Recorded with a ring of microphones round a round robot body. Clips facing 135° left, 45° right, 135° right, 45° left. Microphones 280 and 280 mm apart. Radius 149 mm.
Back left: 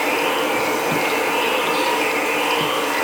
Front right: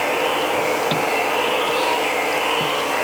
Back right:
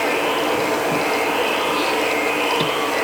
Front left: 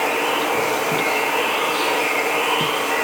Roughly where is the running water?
Left.